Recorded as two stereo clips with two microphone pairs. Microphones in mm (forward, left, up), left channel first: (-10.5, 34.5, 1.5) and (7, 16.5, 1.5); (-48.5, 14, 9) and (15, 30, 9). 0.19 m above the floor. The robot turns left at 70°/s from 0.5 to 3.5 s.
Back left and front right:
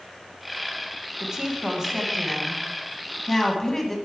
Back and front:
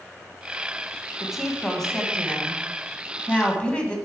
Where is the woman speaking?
50° right, 1.1 m; by 4.0 s 150° left, 1.1 m.